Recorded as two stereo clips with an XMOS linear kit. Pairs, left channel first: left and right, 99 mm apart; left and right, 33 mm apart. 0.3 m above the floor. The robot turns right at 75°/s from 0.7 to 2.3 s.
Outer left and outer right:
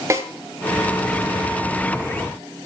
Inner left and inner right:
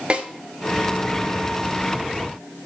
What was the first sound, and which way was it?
A snare drum, 35° right (ahead or behind).